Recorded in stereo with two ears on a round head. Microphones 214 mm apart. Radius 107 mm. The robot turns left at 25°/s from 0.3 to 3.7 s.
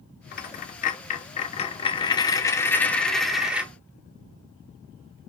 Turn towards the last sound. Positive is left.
turn(degrees=-10)